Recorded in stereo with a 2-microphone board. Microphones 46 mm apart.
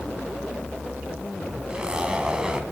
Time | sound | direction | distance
1.7 | a zipper | 15° right (ahead or behind) | 2 m